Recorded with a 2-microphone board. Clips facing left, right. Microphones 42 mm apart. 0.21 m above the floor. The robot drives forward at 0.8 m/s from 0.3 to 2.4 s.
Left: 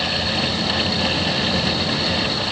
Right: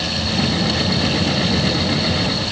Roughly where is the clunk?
I don't hear a clunk.